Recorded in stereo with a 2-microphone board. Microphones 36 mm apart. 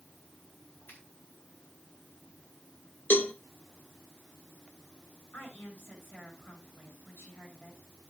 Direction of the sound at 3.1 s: 60° left (ahead or behind).